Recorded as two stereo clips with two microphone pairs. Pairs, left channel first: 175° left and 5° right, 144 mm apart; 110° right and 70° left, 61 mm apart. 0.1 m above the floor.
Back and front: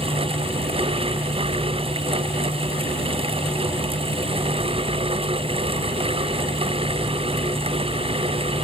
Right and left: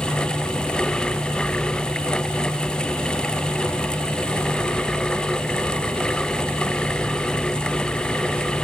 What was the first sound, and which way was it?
Only background noise.